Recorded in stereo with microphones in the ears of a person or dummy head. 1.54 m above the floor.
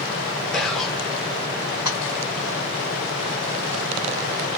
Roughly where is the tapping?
Centre.